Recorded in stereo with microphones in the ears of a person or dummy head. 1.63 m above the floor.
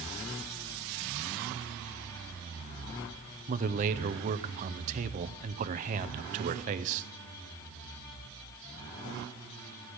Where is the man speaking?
40° right (ahead or behind), 0.8 m.